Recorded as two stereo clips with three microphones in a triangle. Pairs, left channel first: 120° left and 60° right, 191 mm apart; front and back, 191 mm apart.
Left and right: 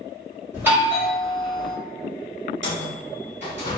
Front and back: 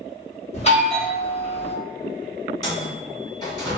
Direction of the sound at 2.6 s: 70° right.